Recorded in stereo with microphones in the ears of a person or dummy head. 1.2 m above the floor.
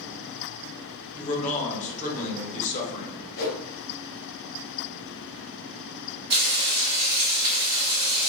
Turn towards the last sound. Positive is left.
turn(degrees=-25)  # may be behind; listen again after turning